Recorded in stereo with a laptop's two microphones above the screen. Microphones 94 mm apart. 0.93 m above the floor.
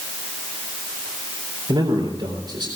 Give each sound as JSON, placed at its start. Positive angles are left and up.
{"t": 1.7, "sound": "a man speaking", "side_deg": -55, "distance_m": 3.5}